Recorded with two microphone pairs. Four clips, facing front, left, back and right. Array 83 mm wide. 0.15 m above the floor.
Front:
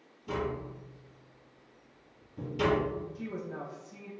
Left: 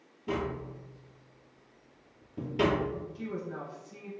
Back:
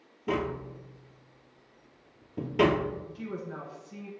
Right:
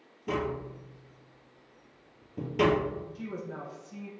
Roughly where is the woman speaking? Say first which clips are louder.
Left 1 dB, back 1 dB; behind.